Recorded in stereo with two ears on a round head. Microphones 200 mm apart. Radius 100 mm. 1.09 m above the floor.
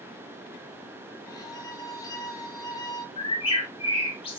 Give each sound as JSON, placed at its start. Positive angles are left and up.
{"t": 1.3, "sound": "a violin", "side_deg": 15, "distance_m": 1.5}
{"t": 3.2, "sound": "a bird", "side_deg": 25, "distance_m": 4.0}